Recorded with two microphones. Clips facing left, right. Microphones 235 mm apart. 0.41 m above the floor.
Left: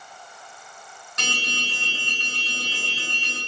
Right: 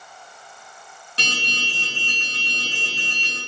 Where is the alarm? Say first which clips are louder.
Right 1 dB; 30° right (ahead or behind), 7.5 m.